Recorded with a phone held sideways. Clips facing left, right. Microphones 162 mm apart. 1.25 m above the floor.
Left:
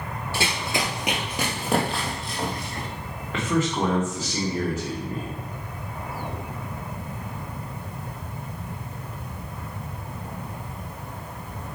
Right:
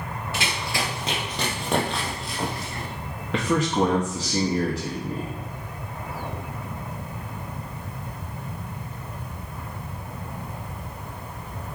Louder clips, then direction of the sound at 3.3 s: Right 2 dB; 85° right.